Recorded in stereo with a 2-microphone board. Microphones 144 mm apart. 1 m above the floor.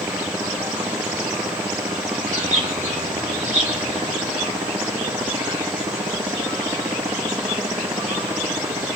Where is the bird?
55° right (ahead or behind), 6 m.